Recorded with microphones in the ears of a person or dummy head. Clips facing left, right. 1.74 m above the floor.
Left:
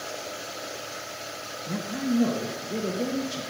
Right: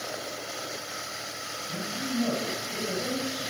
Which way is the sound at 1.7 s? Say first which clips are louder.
Left 7 dB; 75° left (ahead or behind).